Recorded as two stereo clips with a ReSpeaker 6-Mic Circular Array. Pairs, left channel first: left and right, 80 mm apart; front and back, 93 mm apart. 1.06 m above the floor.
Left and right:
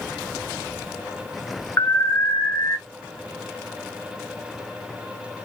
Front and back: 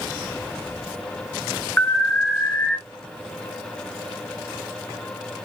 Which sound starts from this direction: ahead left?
An alarm, at 1.8 s.